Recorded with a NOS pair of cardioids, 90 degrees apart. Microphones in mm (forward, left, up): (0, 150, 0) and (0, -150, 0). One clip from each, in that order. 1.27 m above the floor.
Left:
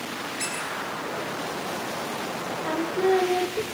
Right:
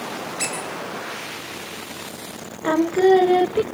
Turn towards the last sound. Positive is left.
turn(degrees=-35)